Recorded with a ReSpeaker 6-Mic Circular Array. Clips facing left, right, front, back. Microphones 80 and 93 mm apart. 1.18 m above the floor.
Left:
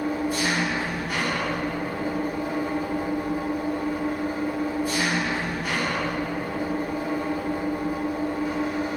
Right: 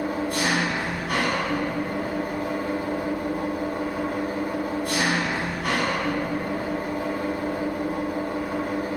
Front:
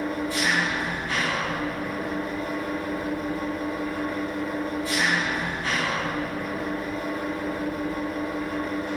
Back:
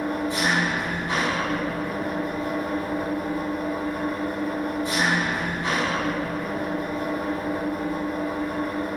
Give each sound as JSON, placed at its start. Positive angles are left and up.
{"t": 0.0, "sound": "an engine running", "azimuth_deg": -110, "distance_m": 8.0}